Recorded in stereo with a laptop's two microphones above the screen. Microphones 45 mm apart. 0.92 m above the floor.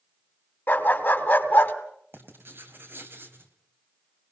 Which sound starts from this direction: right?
Writing, at 2.1 s.